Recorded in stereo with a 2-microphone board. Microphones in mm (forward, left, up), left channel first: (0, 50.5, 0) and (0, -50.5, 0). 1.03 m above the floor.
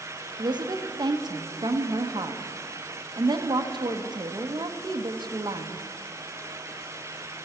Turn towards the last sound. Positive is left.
turn(degrees=-45)  # may be behind; listen again after turning